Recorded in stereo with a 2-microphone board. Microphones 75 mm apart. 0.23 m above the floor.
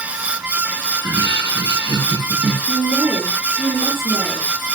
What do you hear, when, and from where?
0.9 s laughter: 60° right (ahead or behind), 5 m
2.7 s a woman speaking: 30° right (ahead or behind), 5.5 m